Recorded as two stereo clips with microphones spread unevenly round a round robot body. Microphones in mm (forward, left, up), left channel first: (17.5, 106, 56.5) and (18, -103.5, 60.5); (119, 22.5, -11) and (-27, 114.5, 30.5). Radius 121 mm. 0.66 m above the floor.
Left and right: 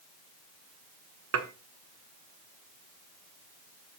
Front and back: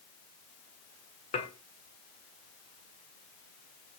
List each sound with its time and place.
1.3 s dishes clattering: 90° right, 1.4 m